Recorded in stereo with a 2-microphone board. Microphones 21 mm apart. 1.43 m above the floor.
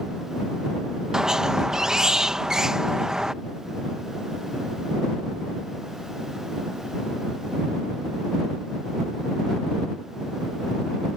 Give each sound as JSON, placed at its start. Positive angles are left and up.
{"t": 1.1, "sound": "a squeak", "side_deg": -30}